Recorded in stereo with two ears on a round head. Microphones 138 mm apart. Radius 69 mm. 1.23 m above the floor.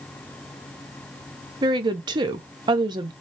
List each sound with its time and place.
1.6 s a woman speaking: 30° right (ahead or behind), 0.5 m